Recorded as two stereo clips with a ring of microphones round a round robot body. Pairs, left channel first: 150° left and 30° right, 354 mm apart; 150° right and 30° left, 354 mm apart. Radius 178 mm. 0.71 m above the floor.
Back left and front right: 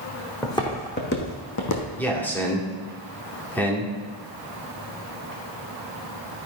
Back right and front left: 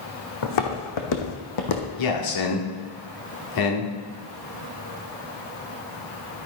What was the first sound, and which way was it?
Footsteps, 130° right.